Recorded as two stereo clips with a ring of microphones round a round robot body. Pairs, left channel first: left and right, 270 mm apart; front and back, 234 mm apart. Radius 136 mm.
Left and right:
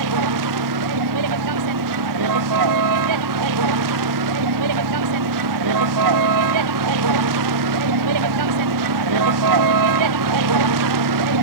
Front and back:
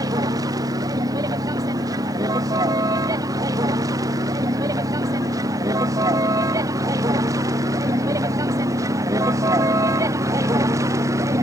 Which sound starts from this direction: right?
A vehicle, at 0.0 s.